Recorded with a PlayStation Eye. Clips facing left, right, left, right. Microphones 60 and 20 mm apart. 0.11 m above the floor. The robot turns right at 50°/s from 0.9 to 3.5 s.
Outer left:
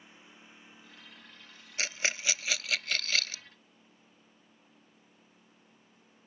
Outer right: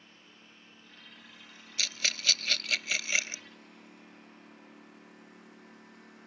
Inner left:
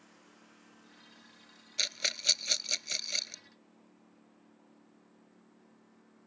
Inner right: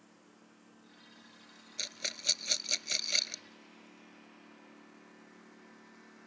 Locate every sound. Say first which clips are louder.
0.0 s a lawn mower: outer left 1 dB, inner left 1 dB; 165° left; by 6.3 s 65° right
1.8 s a rattle: outer left 2 dB, inner left 6 dB; 35° left (ahead or behind); by 3.4 s 25° right (ahead or behind)